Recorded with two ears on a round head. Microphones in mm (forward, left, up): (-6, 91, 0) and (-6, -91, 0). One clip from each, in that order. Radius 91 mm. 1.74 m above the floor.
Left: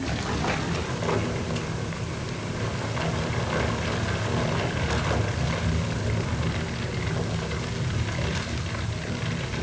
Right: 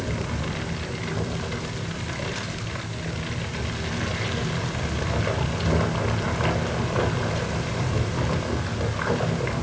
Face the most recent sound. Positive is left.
No sound to turn to.